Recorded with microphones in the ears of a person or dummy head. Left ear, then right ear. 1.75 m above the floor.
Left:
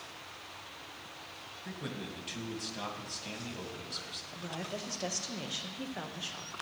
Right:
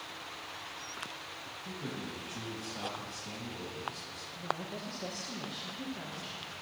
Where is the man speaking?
60° left (ahead or behind), 1.8 m.